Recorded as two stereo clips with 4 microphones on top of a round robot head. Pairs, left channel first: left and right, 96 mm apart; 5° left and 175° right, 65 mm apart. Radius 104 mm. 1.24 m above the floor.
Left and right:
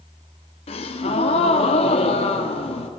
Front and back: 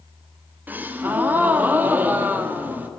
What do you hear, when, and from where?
0.7 s a gasp: 125° left, 1.3 m